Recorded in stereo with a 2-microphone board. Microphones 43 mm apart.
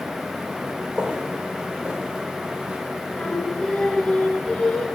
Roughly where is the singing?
Left.